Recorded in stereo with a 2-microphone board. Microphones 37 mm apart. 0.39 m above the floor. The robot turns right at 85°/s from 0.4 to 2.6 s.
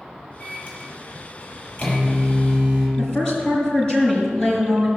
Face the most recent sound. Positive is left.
turn(degrees=20)  # may be behind; listen again after turning